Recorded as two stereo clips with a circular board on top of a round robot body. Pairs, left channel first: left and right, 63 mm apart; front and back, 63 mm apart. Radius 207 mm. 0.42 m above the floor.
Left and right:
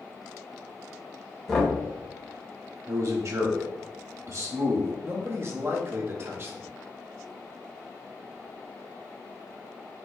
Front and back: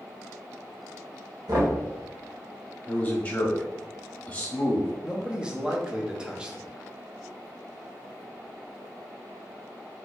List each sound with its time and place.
1.5 s knocking: 175° left, 1.7 m
2.9 s a man speaking: 65° right, 1.6 m
5.0 s a man speaking: 110° right, 1.2 m